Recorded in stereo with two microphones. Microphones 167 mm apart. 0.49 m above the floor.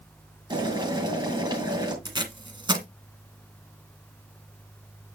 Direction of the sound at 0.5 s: 30° right (ahead or behind).